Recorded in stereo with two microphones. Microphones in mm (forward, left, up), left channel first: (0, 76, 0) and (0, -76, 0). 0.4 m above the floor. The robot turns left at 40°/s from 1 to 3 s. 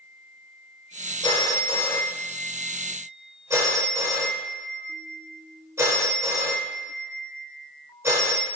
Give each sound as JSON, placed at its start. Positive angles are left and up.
{"t": 1.2, "sound": "a phone ringing", "side_deg": 30, "distance_m": 0.7}